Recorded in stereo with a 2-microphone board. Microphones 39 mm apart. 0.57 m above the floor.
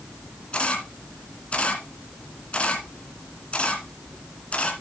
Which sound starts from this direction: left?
A camera shutter, at 0.5 s.